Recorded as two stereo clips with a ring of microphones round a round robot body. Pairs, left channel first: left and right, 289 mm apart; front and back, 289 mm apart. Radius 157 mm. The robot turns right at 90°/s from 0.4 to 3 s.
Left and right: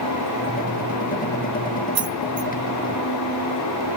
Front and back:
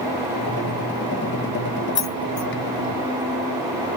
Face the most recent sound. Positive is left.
turn(degrees=40)